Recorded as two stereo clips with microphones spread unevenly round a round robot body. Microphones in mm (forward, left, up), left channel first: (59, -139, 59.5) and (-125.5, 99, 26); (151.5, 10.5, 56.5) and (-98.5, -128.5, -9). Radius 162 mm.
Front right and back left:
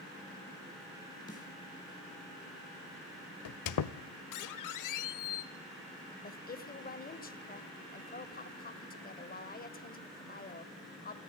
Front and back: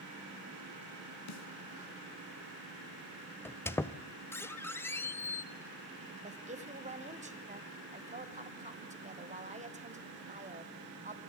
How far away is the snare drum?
About 2.5 m.